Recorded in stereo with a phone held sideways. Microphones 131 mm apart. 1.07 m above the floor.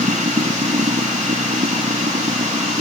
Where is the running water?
75° right (ahead or behind).